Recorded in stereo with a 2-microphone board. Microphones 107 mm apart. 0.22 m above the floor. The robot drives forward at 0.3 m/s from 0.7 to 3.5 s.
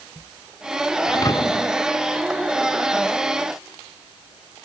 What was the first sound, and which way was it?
A thud, 30° left (ahead or behind).